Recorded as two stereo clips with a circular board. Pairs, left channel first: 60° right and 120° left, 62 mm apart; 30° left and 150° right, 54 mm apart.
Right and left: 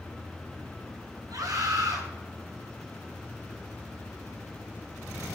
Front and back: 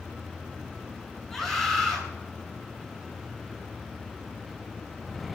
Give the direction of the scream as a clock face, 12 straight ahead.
8 o'clock.